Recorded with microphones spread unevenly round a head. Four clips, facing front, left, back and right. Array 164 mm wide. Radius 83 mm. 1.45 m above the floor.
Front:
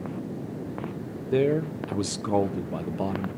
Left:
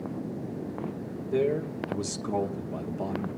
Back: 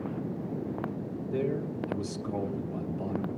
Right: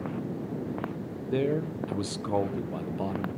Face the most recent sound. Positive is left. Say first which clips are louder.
# left 1 dB, front 8 dB
turn(degrees=-10)